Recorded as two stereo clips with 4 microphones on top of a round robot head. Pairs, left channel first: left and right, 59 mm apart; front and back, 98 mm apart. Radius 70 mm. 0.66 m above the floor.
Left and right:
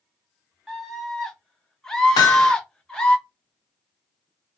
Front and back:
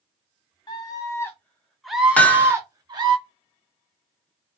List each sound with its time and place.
0.7 s a scream: straight ahead, 1.5 m; by 3.2 s 165° left, 1.6 m
2.2 s hammering: 75° left, 0.8 m